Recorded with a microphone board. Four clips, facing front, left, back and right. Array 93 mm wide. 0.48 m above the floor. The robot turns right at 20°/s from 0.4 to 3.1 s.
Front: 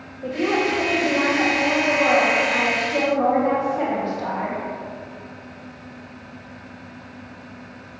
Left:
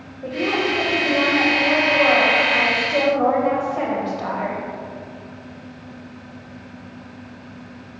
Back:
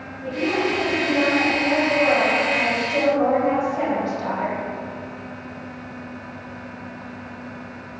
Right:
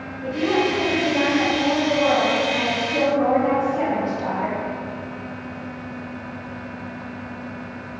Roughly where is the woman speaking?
Ahead left.